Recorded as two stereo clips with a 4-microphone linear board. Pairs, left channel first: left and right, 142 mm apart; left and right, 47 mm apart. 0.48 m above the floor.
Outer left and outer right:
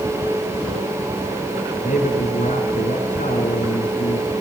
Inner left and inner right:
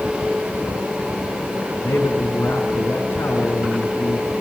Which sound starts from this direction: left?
A man speaking, at 1.8 s.